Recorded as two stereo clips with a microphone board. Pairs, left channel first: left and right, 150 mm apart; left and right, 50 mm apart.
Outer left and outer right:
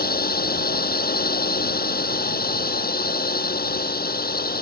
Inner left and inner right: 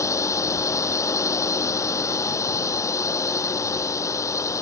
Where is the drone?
75° left (ahead or behind).